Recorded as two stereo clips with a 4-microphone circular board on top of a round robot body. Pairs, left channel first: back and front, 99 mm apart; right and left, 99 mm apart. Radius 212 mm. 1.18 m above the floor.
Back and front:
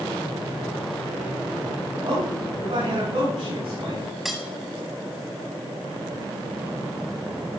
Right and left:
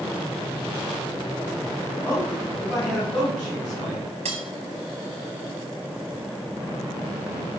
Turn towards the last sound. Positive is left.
turn(degrees=90)